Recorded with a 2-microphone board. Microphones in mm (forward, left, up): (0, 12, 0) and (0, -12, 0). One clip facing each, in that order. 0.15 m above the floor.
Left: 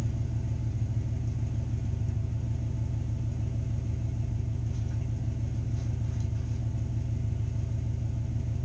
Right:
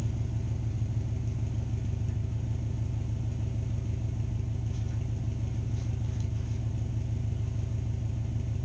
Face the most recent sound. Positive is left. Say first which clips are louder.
# left 1 dB
turn(degrees=-25)  # may be behind; listen again after turning